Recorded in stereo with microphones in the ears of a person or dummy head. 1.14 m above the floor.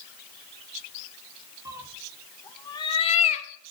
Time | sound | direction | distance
1.6 | a cat meowing | 20° right (ahead or behind) | 0.8 m